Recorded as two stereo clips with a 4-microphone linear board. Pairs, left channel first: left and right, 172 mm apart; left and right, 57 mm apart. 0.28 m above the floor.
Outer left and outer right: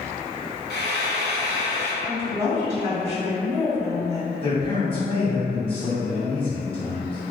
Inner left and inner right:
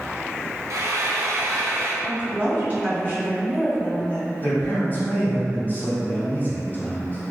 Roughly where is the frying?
Right.